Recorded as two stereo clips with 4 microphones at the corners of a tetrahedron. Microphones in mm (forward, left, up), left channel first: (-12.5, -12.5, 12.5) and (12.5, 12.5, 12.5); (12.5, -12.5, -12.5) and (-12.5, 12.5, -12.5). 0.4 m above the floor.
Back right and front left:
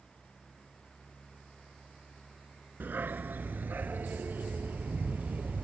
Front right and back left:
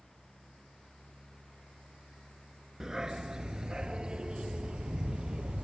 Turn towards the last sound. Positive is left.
turn(degrees=75)